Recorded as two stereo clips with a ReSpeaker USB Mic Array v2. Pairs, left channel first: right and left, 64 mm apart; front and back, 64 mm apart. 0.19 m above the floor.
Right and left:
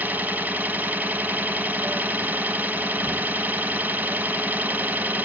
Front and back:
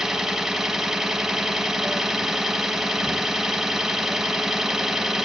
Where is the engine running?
105° left, 0.8 m.